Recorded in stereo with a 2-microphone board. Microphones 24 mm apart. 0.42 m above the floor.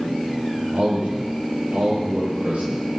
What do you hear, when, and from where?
0.7 s a man speaking: 70° right (ahead or behind), 9 m